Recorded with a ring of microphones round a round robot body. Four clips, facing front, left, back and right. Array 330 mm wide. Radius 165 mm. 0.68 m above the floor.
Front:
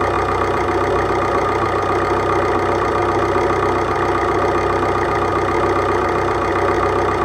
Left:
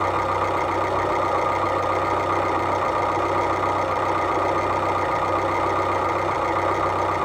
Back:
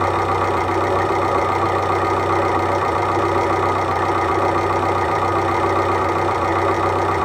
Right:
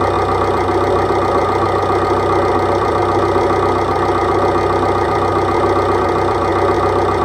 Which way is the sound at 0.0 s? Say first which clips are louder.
Right 7 dB, front 1 dB; 70° right.